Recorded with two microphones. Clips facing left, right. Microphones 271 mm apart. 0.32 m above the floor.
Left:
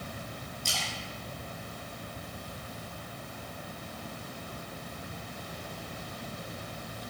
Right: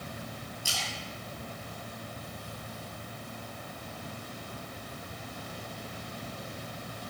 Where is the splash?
10° right (ahead or behind), 1.6 m.